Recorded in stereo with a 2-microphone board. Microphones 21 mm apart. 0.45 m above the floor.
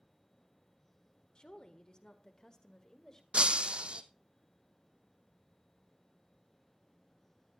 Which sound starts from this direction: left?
A woman speaking, at 1.4 s.